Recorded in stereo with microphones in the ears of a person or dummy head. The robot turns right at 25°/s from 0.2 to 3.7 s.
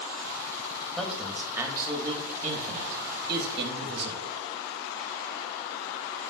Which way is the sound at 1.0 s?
175° right.